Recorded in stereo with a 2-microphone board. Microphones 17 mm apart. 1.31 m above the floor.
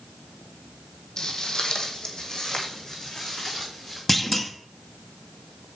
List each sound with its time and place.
1.2 s footsteps: 50° left (ahead or behind), 2.0 m; by 4.0 s 40° left (ahead or behind), 4 m
4.1 s a clunk: 15° left (ahead or behind), 0.9 m